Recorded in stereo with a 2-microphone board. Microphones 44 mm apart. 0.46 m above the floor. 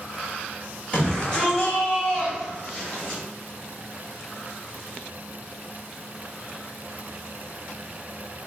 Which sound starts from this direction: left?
A shout, at 0.9 s.